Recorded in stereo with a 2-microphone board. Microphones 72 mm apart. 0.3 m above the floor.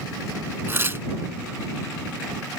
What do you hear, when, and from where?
0.7 s tearing paper: 35° right (ahead or behind)